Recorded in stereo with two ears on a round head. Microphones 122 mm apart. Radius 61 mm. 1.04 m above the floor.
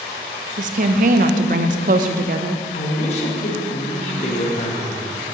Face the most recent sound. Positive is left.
turn(degrees=50)  # may be behind; listen again after turning